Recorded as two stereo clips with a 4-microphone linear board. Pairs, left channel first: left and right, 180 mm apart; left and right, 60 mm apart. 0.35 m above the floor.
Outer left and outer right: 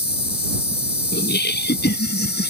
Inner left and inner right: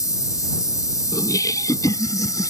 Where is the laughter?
70° left (ahead or behind).